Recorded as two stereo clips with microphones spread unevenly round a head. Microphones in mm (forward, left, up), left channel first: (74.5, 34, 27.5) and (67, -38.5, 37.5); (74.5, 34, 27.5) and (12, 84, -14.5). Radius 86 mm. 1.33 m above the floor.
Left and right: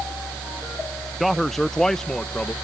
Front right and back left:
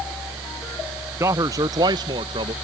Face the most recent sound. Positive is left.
turn(degrees=165)